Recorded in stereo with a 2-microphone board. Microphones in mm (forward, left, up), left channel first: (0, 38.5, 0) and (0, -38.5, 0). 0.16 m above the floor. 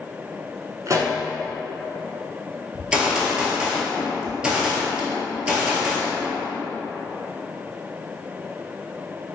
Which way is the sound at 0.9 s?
45° right (ahead or behind).